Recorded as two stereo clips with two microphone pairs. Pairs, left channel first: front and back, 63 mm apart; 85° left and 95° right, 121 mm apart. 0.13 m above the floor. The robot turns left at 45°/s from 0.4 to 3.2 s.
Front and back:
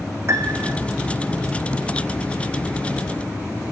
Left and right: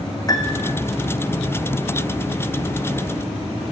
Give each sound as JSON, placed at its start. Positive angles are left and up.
{"t": 0.3, "sound": "a piano", "azimuth_deg": 145, "distance_m": 1.2}